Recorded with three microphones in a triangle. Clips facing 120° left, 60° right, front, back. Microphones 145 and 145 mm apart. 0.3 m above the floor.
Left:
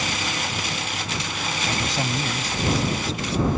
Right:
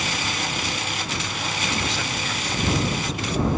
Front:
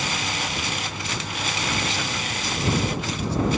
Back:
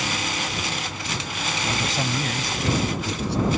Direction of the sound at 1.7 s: 135° left.